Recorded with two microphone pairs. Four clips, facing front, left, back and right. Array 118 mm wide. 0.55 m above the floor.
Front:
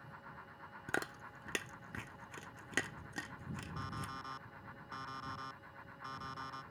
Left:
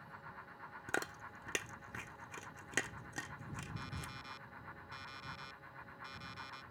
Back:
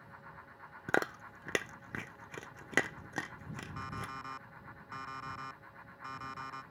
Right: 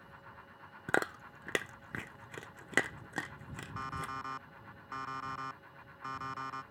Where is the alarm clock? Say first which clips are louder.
Right 9 dB, back 4 dB; 100° right.